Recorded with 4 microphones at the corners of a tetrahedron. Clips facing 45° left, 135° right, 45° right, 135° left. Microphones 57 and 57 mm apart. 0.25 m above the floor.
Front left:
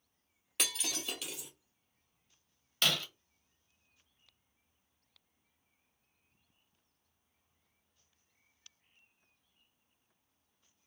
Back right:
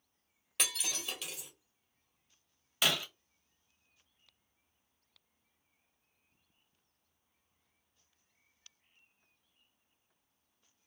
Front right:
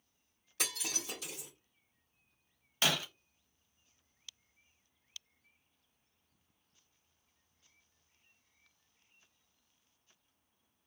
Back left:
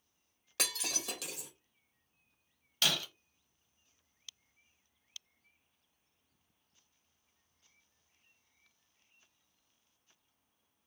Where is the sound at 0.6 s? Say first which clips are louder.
Even, back left 1 dB; 135° left, 2.5 m.